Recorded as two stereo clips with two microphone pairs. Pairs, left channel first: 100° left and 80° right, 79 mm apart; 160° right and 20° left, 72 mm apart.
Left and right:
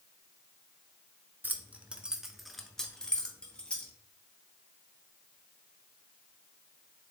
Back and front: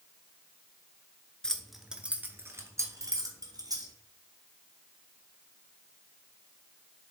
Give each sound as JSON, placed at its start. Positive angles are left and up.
{"t": 1.4, "sound": "keys jangling", "azimuth_deg": -100, "distance_m": 1.0}